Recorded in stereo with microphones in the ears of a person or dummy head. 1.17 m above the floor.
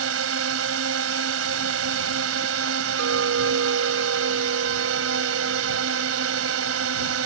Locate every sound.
0.0 s a drone: 85° right
3.0 s a clink: 80° right